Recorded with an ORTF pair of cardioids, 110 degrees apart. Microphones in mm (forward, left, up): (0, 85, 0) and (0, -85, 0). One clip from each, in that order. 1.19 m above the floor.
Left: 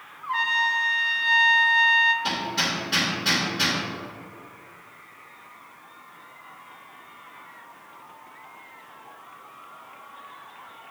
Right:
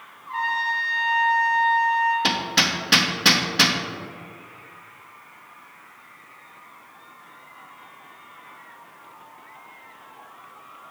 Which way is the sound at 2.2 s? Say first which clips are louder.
Right 5 dB; 70° right.